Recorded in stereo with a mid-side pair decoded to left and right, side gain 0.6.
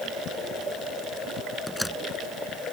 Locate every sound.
1.7 s a door slam: 5° left